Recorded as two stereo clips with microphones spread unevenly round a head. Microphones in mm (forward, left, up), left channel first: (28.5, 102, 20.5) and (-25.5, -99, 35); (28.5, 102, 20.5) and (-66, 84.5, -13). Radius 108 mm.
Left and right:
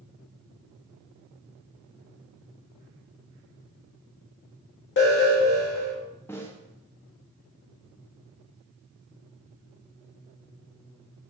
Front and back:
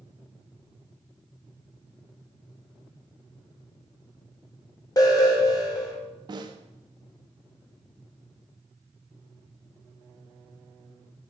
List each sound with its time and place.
5.0 s an alarm: 70° left, 1.6 m
6.3 s a snare drum: 150° left, 0.6 m